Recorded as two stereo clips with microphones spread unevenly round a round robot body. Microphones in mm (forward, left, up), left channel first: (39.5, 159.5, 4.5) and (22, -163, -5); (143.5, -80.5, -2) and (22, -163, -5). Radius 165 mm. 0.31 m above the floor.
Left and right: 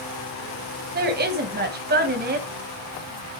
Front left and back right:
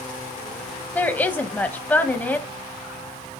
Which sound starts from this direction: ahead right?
A woman speaking, at 0.9 s.